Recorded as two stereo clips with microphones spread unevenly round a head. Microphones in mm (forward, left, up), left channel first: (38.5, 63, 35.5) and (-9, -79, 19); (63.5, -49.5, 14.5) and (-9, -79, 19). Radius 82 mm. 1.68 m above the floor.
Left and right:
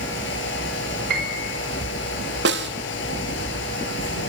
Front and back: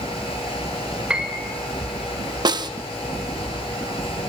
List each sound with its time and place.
0.0 s a fan: 70° left, 7.5 m
1.1 s a piano: 80° right, 6 m
2.5 s a snare drum: 125° right, 1.9 m